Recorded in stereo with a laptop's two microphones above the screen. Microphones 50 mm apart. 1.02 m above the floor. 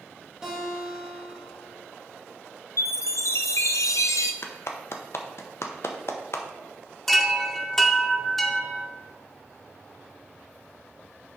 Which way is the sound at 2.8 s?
80° left.